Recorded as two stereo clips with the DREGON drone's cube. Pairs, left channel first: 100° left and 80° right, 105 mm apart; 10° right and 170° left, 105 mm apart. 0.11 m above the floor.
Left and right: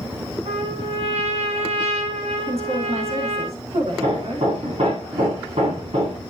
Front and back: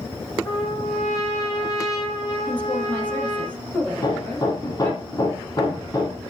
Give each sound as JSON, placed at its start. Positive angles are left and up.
{"t": 0.5, "sound": "a trumpet", "azimuth_deg": -70, "distance_m": 6.0}
{"t": 2.5, "sound": "a woman speaking", "azimuth_deg": -85, "distance_m": 4.5}
{"t": 3.9, "sound": "hammering", "azimuth_deg": -65, "distance_m": 4.0}